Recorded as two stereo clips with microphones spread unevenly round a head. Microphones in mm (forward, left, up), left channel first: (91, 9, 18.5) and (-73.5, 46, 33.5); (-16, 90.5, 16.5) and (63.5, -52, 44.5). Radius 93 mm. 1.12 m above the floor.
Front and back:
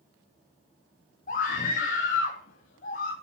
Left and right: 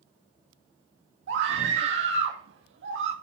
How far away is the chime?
No chime in this recording.